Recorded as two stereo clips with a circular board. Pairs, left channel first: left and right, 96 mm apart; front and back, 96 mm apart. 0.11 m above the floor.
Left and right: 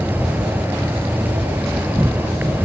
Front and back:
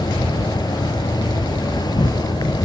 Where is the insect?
25° right, 1.3 m.